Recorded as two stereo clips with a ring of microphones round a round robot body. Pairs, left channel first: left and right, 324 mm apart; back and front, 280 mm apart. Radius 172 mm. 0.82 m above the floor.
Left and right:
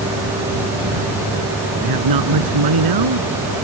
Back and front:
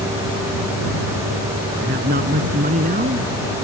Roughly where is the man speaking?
Ahead right.